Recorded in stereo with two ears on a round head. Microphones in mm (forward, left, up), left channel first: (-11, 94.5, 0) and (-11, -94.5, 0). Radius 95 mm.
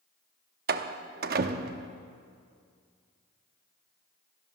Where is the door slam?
45° right (ahead or behind), 0.7 m.